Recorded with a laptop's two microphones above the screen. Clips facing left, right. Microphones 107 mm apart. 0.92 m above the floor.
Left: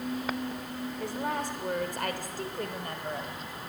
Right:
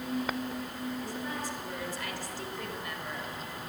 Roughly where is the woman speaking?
Left.